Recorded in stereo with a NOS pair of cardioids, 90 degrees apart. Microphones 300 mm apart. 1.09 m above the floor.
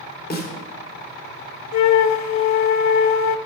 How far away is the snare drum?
About 3 m.